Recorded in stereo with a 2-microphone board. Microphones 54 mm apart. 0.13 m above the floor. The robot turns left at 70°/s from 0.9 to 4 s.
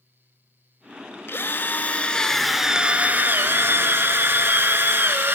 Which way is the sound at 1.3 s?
85° left.